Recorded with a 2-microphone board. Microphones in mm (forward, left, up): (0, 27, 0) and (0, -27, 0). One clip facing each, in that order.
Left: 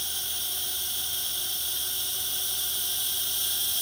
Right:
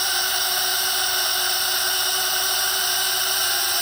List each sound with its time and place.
0.0 s a drone: 80° right; by 3.8 s 75° right (ahead or behind)